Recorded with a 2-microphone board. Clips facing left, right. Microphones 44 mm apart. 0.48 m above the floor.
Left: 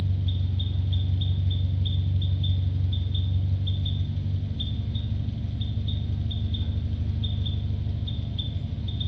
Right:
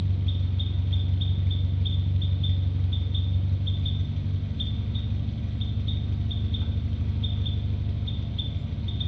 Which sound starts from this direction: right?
An engine running, at 0.0 s.